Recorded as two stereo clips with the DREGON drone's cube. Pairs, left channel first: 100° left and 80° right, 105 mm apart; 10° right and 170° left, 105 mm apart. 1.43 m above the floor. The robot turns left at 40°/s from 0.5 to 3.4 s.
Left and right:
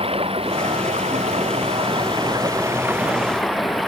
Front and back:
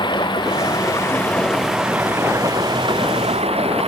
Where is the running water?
55° right; by 3.9 s 170° right.